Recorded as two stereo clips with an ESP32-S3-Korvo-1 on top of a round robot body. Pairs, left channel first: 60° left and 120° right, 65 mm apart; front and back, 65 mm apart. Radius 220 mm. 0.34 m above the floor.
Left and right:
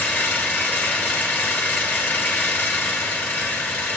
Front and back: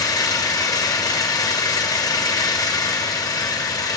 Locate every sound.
0.0 s an engine running: 5° right, 1.7 m